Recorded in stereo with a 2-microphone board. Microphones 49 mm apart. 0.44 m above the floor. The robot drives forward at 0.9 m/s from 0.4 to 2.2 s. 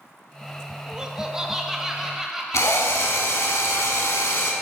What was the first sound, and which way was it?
Laughter, 20° right (ahead or behind).